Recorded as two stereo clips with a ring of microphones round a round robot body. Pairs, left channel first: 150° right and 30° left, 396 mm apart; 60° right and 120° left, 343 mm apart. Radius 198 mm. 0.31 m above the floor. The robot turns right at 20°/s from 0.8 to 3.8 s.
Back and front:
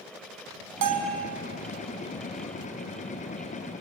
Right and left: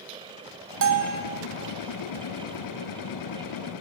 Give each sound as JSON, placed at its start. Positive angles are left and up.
{"t": 0.8, "sound": "a bell", "azimuth_deg": 75, "distance_m": 2.5}